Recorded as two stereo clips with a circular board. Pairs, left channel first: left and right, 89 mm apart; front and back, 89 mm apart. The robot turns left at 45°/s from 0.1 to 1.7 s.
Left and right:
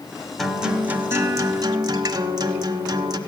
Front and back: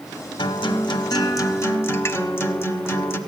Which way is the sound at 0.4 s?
Straight ahead.